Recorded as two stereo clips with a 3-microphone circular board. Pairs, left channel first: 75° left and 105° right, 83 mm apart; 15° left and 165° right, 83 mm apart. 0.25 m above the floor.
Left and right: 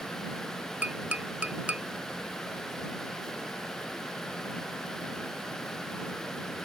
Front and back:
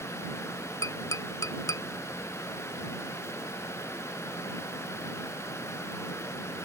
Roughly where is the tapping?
Ahead right.